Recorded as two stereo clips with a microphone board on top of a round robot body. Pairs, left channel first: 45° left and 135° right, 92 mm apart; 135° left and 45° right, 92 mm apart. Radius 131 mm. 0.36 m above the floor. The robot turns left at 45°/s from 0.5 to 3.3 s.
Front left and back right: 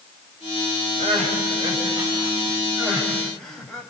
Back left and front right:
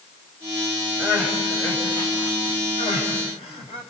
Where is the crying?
125° right, 3.5 m; by 3.8 s 130° left, 3.5 m.